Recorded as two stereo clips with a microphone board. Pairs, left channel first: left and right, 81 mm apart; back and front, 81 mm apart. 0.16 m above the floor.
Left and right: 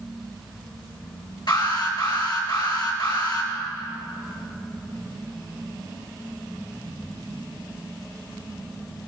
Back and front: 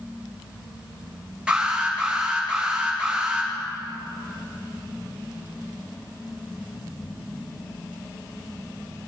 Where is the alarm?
75° left, 3 m.